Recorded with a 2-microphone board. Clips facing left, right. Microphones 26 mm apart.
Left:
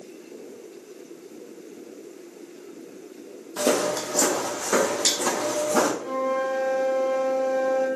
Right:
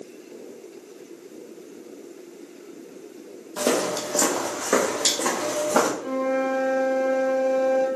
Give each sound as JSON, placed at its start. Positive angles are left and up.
{"t": 3.6, "sound": "footsteps", "side_deg": -5, "distance_m": 1.3}
{"t": 6.0, "sound": "a flute", "side_deg": -50, "distance_m": 2.0}